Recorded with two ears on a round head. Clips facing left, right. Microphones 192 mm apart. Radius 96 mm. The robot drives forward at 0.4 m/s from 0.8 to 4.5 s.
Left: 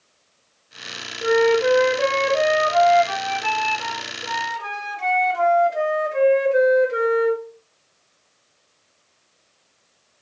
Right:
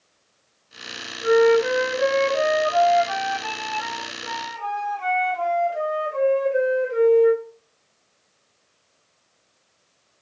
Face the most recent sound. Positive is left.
turn(degrees=30)  # may be behind; listen again after turning